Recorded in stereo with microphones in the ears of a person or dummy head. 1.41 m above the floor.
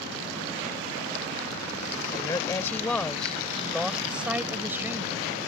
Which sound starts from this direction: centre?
A woman speaking, at 2.1 s.